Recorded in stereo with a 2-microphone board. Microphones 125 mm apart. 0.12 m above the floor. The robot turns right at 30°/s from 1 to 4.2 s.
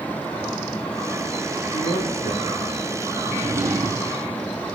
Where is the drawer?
10° right (ahead or behind), 2.5 m; by 4.1 s 35° right (ahead or behind), 2.5 m.